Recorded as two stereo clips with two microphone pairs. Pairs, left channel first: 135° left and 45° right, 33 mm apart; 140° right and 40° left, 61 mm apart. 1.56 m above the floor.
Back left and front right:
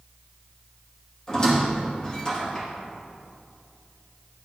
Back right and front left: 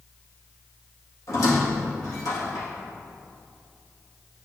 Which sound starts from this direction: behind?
A squeak, at 1.3 s.